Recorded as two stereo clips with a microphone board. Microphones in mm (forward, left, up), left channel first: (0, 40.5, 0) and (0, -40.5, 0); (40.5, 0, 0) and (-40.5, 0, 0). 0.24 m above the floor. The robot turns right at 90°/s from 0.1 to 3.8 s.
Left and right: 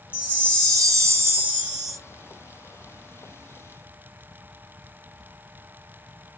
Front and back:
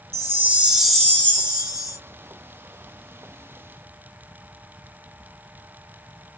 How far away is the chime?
About 0.8 m.